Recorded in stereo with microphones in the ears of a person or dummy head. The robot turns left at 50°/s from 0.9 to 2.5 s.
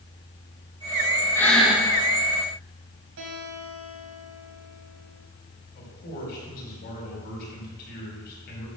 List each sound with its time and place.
1.4 s breathing: 15° left (ahead or behind), 2 m; by 1.9 s 15° right (ahead or behind), 2 m
3.2 s a guitar: 65° right (ahead or behind), 3.5 m
5.8 s a man speaking: 50° left (ahead or behind), 4.5 m